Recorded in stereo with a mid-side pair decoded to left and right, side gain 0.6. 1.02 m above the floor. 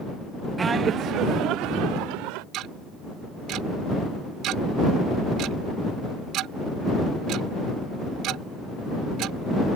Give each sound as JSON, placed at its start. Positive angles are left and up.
{"t": 0.6, "sound": "laughter", "azimuth_deg": -25}
{"t": 2.5, "sound": "ticking", "azimuth_deg": -65}